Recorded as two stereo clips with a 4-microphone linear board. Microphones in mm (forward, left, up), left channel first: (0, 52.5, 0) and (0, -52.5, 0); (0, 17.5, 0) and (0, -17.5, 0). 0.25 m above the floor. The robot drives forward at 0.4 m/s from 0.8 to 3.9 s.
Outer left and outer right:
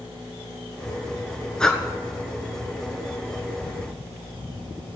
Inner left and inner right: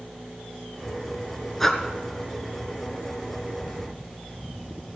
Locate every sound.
1.6 s breathing: 5° left (ahead or behind), 1.1 m